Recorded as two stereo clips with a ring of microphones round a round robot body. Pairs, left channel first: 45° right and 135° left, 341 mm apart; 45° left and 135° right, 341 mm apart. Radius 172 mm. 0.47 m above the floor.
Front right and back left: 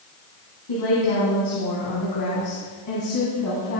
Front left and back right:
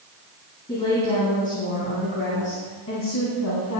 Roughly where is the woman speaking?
Ahead right.